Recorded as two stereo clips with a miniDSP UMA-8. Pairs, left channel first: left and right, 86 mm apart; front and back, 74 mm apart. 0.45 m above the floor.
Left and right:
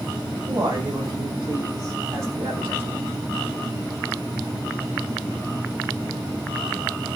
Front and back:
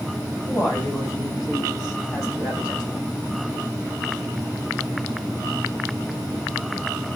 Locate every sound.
0.5 s a man speaking: 55° right, 3.5 m; by 3.1 s 25° right, 4 m